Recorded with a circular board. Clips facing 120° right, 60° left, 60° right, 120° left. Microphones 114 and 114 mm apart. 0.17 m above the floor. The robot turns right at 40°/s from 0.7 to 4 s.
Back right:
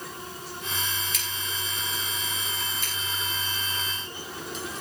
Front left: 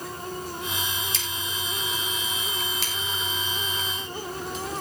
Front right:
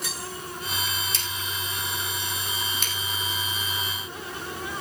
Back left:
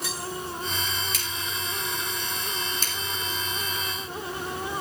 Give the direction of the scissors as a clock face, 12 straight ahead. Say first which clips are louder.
Front left 2 dB, even; 12 o'clock.